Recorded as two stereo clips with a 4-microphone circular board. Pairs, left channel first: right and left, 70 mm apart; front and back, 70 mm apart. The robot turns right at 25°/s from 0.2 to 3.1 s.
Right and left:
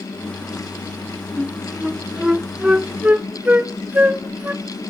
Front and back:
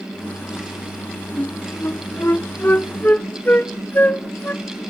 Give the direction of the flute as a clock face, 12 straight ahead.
12 o'clock.